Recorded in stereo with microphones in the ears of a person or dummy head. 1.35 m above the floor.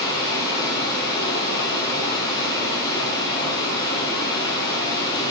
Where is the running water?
25° left (ahead or behind), 7.5 m.